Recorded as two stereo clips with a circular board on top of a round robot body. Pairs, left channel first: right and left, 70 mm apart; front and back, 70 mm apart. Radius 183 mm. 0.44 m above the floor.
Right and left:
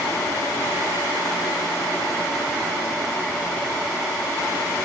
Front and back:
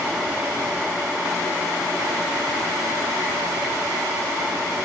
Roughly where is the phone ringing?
I don't hear a phone ringing.